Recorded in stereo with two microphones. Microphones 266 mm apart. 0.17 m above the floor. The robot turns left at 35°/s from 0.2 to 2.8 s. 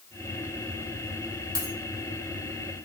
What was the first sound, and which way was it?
A dropped coin, 65° left (ahead or behind).